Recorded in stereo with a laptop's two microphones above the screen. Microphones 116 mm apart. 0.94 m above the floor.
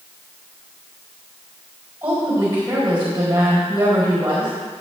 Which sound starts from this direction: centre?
A woman speaking, at 2.0 s.